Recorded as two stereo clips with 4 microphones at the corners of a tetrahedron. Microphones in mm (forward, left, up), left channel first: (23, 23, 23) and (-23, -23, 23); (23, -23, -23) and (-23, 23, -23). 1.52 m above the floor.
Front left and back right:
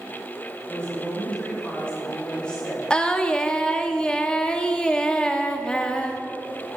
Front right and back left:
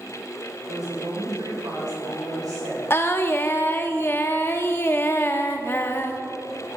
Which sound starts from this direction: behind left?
A woman speaking, at 0.7 s.